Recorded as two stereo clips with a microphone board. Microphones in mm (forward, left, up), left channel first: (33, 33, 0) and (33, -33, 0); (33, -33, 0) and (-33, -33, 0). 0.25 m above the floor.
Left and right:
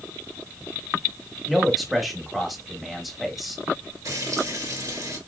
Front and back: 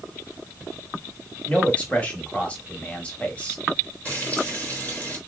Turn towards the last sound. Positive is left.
turn(degrees=-65)